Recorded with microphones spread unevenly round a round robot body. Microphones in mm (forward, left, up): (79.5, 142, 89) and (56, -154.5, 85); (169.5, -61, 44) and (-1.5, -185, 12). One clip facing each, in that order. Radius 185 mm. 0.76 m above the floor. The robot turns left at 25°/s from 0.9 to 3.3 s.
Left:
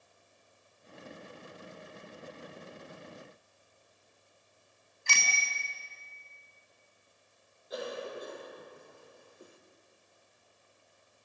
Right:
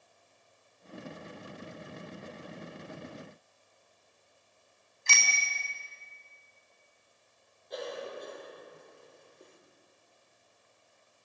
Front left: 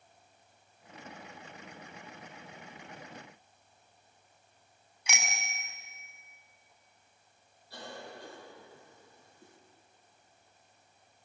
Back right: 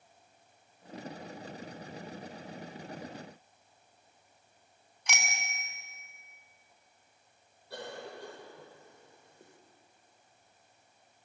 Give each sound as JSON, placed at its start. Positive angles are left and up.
{"t": 5.1, "sound": "a bicycle bell", "azimuth_deg": -45, "distance_m": 4.5}
{"t": 7.7, "sound": "a cough", "azimuth_deg": 170, "distance_m": 3.0}